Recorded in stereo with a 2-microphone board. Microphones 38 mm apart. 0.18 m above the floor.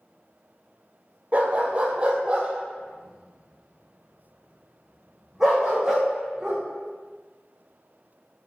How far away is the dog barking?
About 1.4 m.